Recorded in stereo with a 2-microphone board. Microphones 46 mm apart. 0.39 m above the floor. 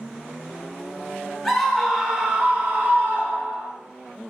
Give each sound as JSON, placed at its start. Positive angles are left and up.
{"t": 1.4, "sound": "a scream", "side_deg": 0, "distance_m": 0.9}